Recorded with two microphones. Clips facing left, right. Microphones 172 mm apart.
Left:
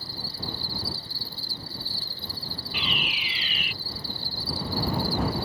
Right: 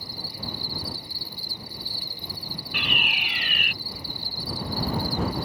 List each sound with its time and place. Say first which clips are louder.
0.0 s an insect: even; 15° right (ahead or behind)
2.7 s a fire alarm: right 1 dB; 60° right (ahead or behind)